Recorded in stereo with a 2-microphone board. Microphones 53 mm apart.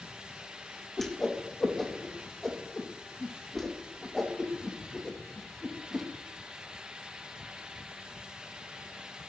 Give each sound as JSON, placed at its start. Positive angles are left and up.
{"t": 1.0, "sound": "a whoosh", "side_deg": 5, "distance_m": 3.0}